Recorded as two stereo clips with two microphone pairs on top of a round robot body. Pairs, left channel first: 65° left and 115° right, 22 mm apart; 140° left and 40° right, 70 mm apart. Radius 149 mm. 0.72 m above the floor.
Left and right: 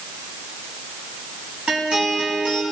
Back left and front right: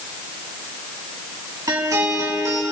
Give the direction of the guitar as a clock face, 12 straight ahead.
2 o'clock.